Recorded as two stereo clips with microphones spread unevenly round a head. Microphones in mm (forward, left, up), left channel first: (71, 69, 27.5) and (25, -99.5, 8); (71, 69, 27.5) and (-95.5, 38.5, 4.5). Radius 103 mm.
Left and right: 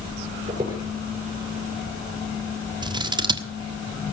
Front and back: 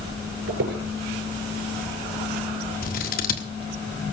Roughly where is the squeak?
Behind.